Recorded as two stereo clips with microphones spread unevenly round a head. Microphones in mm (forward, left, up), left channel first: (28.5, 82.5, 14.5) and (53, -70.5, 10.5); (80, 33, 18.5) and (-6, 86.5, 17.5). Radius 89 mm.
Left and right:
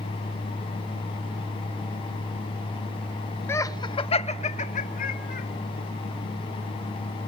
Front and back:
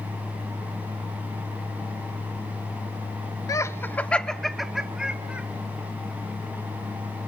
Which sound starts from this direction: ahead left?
Laughter, at 3.5 s.